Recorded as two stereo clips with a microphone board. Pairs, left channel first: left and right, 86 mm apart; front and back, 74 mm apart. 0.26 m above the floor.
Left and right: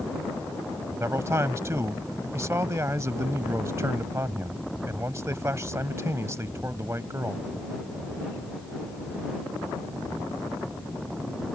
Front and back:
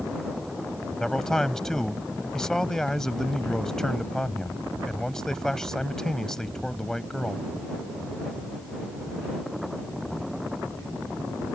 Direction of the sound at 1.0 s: 80° right.